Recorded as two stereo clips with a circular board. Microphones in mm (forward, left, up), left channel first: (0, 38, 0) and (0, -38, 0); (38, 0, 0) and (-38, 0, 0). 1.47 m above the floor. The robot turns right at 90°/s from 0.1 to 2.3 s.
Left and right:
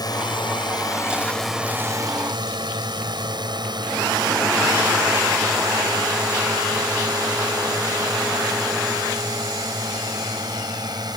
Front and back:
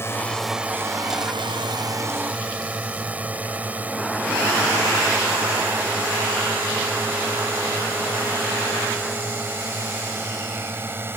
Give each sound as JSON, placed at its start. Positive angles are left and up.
{"t": 0.0, "sound": "a drone", "azimuth_deg": 60}